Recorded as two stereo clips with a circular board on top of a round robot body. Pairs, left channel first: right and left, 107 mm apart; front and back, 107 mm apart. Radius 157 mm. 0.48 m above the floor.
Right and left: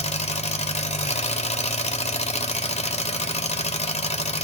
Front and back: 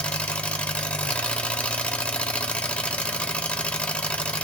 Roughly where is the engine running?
Right.